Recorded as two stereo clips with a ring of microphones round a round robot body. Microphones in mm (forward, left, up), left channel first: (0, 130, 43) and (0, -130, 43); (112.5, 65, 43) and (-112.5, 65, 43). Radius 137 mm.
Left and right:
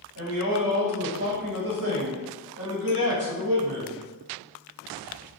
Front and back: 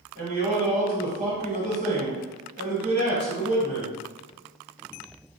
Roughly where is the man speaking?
Behind right.